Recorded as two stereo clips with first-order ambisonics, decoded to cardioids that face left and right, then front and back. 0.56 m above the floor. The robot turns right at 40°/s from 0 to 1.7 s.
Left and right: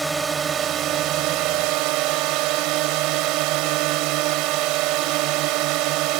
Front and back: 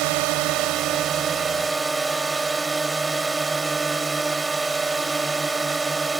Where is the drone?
170° right; by 6.2 s 105° right.